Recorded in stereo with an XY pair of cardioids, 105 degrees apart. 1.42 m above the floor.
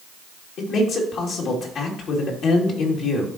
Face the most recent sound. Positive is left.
turn(degrees=65)